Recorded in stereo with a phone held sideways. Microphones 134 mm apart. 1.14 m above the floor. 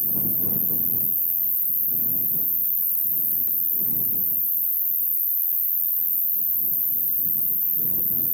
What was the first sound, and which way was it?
An insect, 25° right (ahead or behind).